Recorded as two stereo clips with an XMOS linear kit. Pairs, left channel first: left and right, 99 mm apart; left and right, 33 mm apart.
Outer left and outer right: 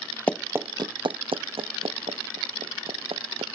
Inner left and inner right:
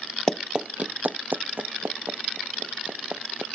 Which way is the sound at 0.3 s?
15° left (ahead or behind).